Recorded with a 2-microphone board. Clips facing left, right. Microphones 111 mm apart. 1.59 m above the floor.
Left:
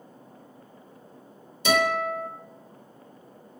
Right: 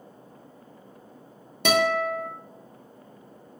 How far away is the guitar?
About 0.9 m.